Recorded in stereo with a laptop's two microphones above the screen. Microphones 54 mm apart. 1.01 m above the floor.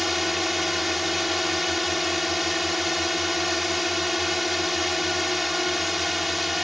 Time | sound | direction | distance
0.0 | a drone | centre (ahead or behind) | ?